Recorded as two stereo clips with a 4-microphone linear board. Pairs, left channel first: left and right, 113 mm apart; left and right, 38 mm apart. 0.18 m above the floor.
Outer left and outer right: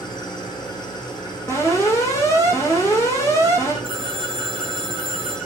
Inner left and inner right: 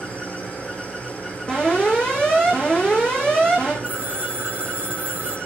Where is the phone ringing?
45° right (ahead or behind), 3 m.